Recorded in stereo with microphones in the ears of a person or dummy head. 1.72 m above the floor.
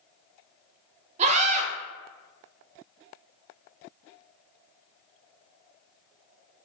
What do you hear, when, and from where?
1.2 s a scream: 40° right (ahead or behind), 1.6 m